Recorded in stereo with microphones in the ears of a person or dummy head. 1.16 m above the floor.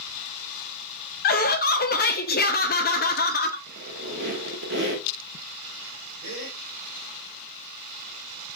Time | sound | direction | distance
1.2 | laughter | 50° left (ahead or behind) | 0.6 m
3.7 | a squeak | 55° right (ahead or behind) | 0.9 m
6.2 | a gasp | 85° right | 2.5 m